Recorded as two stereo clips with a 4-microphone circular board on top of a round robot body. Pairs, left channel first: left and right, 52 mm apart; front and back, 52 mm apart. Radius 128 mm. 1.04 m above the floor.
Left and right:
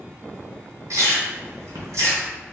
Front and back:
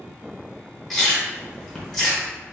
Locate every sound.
0.9 s chewing: 85° right, 1.1 m